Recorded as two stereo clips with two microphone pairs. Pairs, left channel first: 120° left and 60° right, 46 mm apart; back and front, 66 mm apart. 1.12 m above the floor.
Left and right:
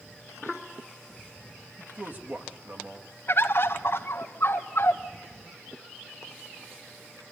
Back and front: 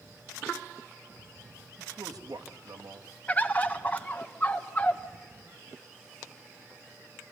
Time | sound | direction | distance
1.8 | a man speaking | 5° right | 1.8 m
3.3 | a bird | 120° left | 1.0 m